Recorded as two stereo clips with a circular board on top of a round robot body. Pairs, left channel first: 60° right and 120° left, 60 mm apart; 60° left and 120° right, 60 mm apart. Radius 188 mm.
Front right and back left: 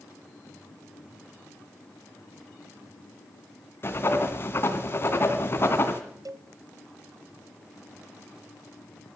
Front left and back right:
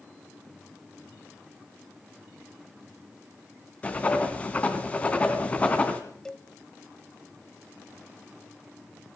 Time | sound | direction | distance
3.8 | writing | 10° right | 2 m
6.2 | a cowbell | 135° left | 0.8 m